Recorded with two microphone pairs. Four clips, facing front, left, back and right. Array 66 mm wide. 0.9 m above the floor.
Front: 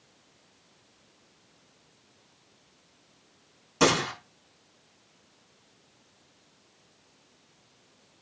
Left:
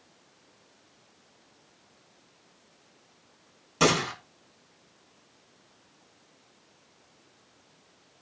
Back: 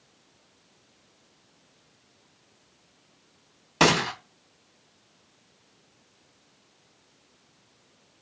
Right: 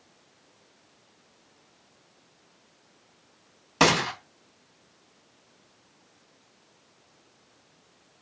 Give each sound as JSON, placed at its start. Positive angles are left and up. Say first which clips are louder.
{"t": 3.8, "sound": "a gunshot", "louder": "right 2 dB, back 2 dB", "azimuth_deg": -130, "distance_m": 4.0}